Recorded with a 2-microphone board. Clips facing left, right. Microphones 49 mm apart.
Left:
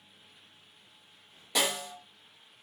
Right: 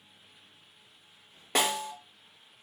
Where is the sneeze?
No sneeze in this recording.